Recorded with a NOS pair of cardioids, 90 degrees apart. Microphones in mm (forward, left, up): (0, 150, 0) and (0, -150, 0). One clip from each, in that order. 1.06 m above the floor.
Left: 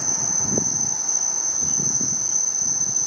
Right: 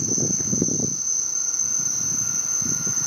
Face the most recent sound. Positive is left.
turn(degrees=30)